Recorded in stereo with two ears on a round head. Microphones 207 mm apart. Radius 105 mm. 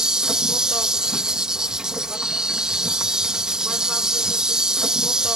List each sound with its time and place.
0.0 s an insect: 5° right (ahead or behind)